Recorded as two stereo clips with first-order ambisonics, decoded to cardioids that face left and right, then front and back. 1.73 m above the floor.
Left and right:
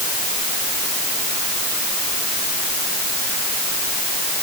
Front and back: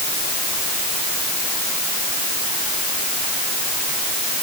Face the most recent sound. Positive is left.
No sound to turn to.